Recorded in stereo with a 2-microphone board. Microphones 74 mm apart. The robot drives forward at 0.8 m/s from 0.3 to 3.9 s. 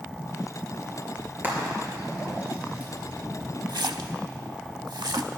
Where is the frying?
30° right (ahead or behind), 3.5 m; by 2.9 s 20° right (ahead or behind), 5 m.